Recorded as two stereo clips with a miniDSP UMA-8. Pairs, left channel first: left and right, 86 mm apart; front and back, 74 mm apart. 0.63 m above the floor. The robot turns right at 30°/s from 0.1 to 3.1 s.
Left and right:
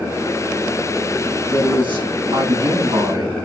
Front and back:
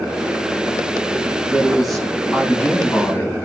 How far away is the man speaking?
About 5 m.